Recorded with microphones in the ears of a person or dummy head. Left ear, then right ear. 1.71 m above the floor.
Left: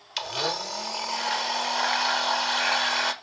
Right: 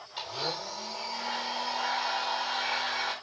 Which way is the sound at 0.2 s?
65° left (ahead or behind).